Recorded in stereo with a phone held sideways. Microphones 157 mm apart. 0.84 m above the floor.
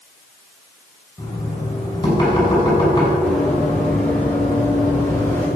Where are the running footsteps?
5° left (ahead or behind), 5 m; by 5.5 s 15° left (ahead or behind), 6 m.